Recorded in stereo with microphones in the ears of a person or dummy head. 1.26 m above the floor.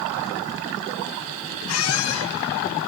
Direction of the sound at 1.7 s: 85° left.